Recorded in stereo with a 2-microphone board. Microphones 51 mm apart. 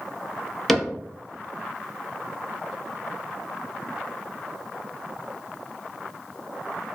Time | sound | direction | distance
0.7 | a cupboard door | 5° left (ahead or behind) | 0.7 m